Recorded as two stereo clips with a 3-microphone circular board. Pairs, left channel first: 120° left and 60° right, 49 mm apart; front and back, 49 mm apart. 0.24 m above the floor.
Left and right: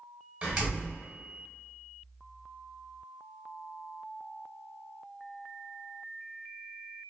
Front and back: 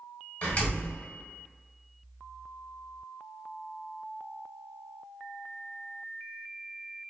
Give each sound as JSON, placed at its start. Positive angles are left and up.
{"t": 0.4, "sound": "a door slam", "azimuth_deg": -15, "distance_m": 1.0}